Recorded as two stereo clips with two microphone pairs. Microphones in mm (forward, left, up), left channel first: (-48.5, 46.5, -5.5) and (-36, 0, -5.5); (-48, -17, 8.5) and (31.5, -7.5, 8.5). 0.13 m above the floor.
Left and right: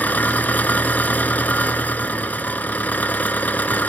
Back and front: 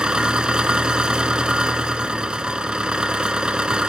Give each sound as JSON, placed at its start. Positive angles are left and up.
{"t": 0.0, "sound": "an engine running", "azimuth_deg": 85, "distance_m": 0.8}